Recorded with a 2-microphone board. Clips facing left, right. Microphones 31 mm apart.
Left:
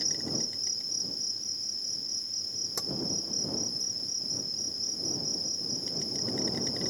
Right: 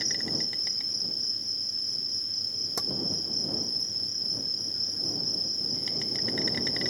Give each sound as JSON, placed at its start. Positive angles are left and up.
{"t": 0.0, "sound": "an insect", "side_deg": -55}
{"t": 2.8, "sound": "tapping", "side_deg": -15}